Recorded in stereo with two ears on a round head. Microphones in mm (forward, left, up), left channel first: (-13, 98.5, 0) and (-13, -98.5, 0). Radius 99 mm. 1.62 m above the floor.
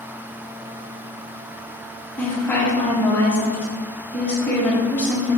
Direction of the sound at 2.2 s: 10° left (ahead or behind).